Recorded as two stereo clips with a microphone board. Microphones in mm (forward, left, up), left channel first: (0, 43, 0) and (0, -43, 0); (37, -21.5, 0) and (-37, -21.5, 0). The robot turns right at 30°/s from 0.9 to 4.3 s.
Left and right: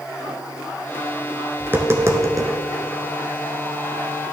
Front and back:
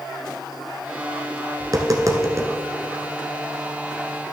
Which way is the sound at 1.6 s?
155° right.